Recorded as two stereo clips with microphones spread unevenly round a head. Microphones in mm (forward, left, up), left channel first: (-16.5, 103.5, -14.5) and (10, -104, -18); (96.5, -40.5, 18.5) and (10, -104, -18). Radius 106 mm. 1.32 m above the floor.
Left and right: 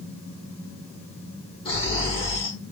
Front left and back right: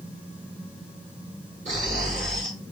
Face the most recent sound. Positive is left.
turn(degrees=165)